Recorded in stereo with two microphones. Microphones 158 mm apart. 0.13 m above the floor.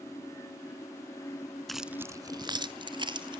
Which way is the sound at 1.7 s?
Centre (ahead or behind).